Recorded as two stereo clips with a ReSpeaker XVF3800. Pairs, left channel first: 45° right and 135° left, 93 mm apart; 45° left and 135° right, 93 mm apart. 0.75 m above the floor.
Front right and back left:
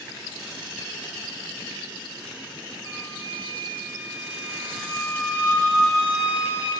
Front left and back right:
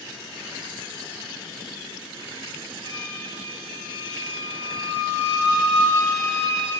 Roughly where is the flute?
Ahead.